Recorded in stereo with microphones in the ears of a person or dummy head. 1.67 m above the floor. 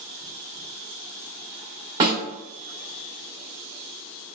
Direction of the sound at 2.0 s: 25° right (ahead or behind).